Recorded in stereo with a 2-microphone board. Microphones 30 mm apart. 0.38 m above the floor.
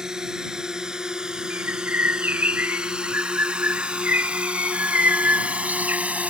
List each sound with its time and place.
0.0 s a drone: 20° right (ahead or behind); by 6.3 s 45° right (ahead or behind)
1.5 s a bird: 70° right (ahead or behind)